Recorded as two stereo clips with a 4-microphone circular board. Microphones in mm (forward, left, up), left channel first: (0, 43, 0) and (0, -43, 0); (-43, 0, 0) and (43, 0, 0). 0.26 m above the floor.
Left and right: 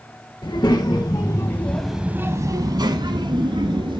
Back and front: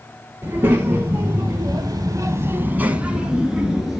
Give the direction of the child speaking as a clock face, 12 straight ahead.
10 o'clock.